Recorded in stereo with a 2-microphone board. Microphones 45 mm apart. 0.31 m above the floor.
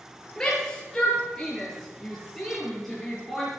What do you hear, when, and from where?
0.4 s a shout: 15° left (ahead or behind), 6 m; by 3.5 s 5° left (ahead or behind), 7.5 m